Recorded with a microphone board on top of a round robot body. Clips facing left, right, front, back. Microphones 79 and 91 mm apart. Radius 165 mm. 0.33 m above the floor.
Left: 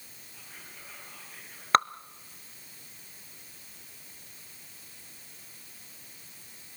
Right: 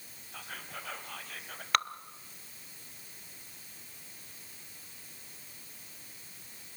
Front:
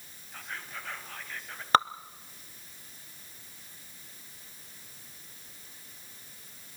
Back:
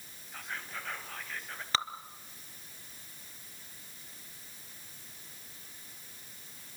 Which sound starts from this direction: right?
Whispering, at 0.3 s.